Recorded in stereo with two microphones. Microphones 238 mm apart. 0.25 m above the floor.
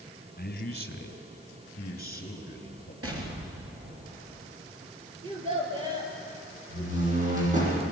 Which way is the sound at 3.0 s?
75° right (ahead or behind).